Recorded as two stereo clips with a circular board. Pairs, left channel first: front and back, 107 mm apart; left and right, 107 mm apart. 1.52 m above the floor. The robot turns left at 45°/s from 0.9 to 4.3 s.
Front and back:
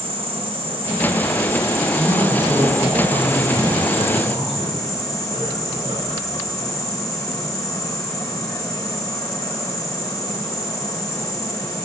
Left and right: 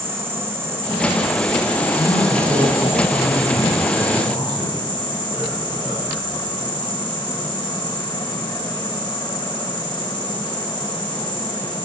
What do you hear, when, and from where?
0.0 s an insect: 155° right, 3 m; by 11.9 s 50° left, 3 m
1.9 s a man speaking: 70° right, 7.5 m; by 6.3 s straight behind, 7.5 m